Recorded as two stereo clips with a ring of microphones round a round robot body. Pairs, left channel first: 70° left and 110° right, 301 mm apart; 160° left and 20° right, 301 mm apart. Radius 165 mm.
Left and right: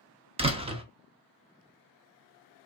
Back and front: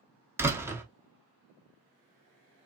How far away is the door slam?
About 0.7 m.